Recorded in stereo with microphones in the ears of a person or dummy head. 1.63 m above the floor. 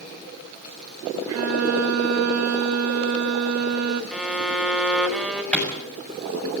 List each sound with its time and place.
1.3 s a violin: 75° right (ahead or behind), 1.6 m
4.1 s a violin: centre (ahead or behind), 2.5 m
5.5 s a clap: 5° left (ahead or behind), 6.5 m